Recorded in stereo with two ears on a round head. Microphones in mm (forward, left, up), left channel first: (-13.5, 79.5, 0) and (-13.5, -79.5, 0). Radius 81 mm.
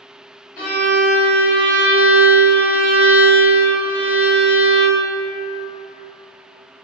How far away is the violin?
About 1.9 m.